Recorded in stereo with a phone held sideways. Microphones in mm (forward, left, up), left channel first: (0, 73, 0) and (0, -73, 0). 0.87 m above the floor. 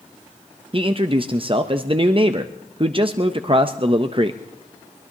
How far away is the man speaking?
About 0.6 m.